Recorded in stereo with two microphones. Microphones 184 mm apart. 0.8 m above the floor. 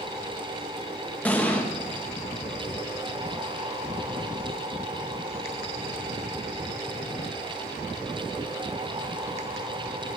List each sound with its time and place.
1.2 s an explosion: 10° left (ahead or behind), 0.9 m